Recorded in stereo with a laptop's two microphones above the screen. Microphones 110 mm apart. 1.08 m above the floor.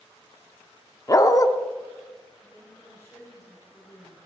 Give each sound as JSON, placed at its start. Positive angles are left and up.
{"t": 1.1, "sound": "a dog barking", "side_deg": 30, "distance_m": 0.7}
{"t": 2.4, "sound": "a woman speaking", "side_deg": 25, "distance_m": 4.0}